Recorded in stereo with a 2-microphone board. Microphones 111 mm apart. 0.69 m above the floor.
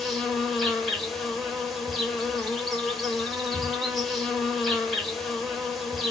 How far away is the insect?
About 0.8 m.